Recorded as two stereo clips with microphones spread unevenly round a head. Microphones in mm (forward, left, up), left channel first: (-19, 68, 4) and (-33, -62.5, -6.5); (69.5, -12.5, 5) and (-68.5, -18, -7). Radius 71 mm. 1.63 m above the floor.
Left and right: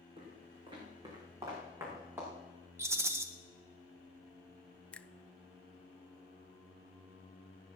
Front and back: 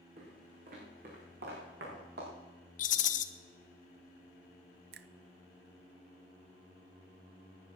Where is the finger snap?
165° left, 0.6 m.